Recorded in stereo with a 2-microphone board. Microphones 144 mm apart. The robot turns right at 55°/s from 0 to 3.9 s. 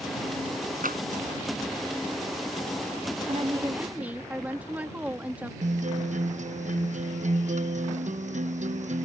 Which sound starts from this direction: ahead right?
A woman speaking, at 3.3 s.